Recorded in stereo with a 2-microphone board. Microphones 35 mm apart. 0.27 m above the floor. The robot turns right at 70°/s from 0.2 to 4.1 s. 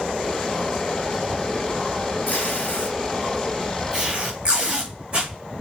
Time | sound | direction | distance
2.3 | tape being pulled | 90° left | 5 m